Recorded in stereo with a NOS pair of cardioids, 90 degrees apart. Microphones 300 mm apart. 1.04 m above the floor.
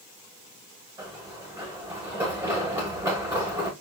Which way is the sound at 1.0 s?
10° right.